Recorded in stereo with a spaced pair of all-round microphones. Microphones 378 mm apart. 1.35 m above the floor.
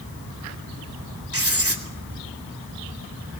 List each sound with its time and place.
1.3 s writing: 35° right (ahead or behind), 3 m